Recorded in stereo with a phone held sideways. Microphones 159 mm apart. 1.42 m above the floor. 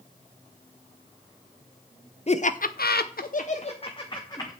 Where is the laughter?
45° left (ahead or behind), 0.8 m; by 4.5 s 25° left (ahead or behind), 1.4 m.